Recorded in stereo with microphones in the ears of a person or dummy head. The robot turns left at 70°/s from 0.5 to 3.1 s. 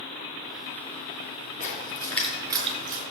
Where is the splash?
45° left (ahead or behind), 4 m; by 3.0 s 50° right (ahead or behind), 4 m.